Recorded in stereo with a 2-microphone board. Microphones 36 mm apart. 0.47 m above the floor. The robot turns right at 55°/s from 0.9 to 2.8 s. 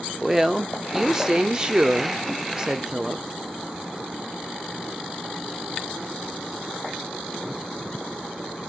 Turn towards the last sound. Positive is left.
turn(degrees=-15)  # may be behind; listen again after turning